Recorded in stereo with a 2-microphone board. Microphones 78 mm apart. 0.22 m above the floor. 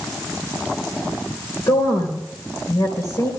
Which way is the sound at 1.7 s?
50° left (ahead or behind).